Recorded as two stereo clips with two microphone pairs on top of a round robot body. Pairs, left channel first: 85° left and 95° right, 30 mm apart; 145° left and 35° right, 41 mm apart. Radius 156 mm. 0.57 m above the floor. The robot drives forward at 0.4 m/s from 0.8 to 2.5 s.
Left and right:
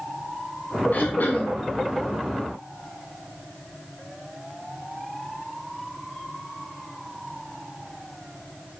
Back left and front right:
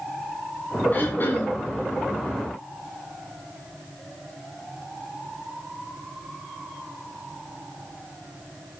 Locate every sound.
0.9 s throat clearing: 95° left, 1.7 m; by 1.5 s 105° left, 1.8 m